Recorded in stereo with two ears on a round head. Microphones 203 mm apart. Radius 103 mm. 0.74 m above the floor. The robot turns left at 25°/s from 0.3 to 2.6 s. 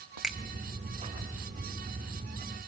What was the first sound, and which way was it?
A finger snap, 5° right (ahead or behind).